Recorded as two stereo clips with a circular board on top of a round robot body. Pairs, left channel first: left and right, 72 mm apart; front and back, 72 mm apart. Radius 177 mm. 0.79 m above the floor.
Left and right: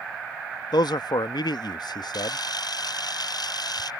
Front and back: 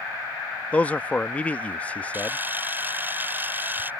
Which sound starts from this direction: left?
A man speaking, at 0.7 s.